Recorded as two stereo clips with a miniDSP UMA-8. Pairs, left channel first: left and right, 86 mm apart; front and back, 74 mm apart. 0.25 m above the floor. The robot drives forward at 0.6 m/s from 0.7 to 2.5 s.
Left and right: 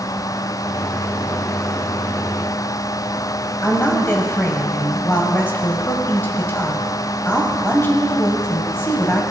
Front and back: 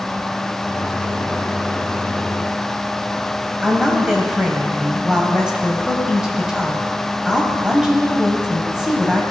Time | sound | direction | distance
3.6 | a woman speaking | 110° left | 1.3 m